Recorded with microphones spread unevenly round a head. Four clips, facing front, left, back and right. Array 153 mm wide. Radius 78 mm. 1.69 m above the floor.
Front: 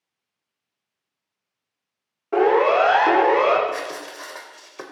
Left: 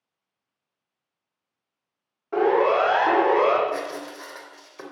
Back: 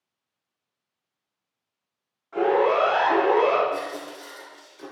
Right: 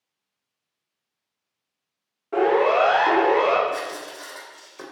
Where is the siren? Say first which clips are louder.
Right 1 dB, front 4 dB; straight ahead, 6 m; by 3.6 s 5° left, 6.5 m.